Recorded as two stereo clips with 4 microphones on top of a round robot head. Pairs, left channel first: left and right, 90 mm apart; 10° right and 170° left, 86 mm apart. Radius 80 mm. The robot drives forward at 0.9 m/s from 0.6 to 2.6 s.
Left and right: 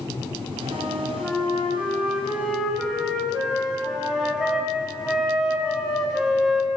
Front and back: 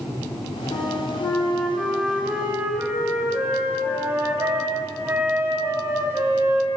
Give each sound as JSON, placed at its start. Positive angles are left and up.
{"t": 0.7, "sound": "a flute", "azimuth_deg": -5, "distance_m": 1.5}